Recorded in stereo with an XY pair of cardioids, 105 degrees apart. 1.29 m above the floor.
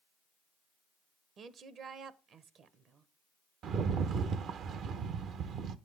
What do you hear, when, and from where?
1.4 s a woman speaking: 60° right, 0.9 m
3.6 s a rattle: 70° right, 0.7 m